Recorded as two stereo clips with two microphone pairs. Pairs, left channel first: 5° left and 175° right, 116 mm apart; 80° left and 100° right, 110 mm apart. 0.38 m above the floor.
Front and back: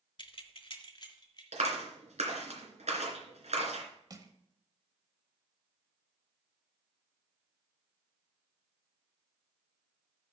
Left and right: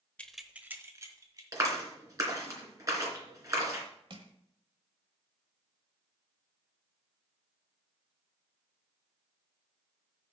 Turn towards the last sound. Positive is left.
turn(degrees=-130)